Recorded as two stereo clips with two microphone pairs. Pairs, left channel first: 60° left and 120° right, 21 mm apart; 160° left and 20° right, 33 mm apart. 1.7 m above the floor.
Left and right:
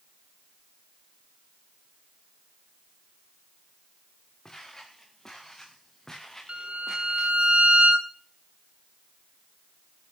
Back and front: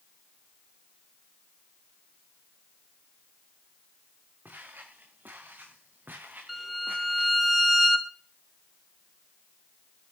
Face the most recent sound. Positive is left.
turn(degrees=-110)